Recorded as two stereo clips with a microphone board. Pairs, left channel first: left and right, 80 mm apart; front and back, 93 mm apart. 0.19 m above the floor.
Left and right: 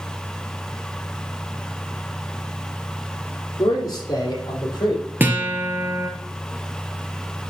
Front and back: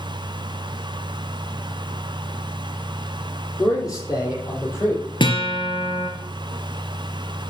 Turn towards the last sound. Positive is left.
turn(degrees=-25)